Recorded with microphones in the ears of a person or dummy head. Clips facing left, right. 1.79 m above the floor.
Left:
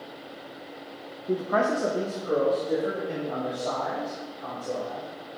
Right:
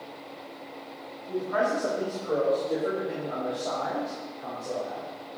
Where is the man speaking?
70° left (ahead or behind), 0.9 m; by 5.1 s 5° right (ahead or behind), 4.5 m.